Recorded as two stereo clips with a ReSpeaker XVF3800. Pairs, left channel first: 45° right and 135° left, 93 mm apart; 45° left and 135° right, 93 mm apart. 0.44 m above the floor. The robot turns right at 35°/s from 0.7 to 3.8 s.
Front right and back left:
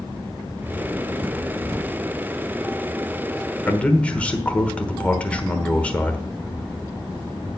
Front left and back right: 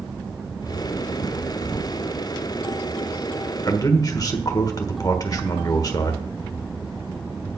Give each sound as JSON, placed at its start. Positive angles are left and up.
{"t": 3.6, "sound": "a man speaking", "azimuth_deg": 20, "distance_m": 1.2}